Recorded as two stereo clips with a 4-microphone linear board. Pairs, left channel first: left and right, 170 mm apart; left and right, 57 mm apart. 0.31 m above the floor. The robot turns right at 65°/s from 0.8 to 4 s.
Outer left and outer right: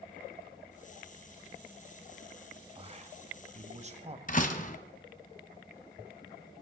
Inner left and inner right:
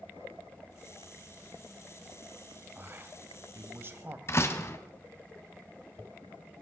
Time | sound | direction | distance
2.8 | a man speaking | 135° right | 1.6 m
4.3 | a door slam | 45° left (ahead or behind) | 1.6 m